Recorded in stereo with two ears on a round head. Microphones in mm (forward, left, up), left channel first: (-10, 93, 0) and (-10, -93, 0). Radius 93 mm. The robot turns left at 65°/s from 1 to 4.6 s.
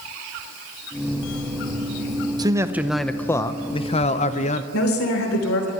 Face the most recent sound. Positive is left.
turn(degrees=80)